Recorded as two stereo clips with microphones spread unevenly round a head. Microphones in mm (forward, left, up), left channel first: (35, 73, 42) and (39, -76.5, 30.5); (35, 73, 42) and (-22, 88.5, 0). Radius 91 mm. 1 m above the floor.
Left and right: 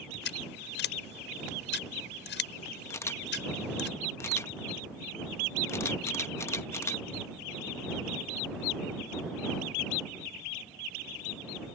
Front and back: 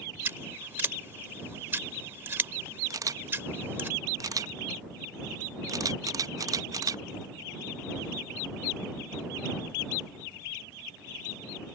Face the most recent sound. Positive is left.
turn(degrees=165)